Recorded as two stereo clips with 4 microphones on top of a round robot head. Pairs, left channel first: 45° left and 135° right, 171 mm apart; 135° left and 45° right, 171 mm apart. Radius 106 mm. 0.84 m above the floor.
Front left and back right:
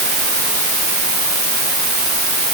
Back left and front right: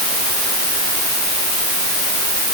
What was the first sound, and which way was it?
Only background noise.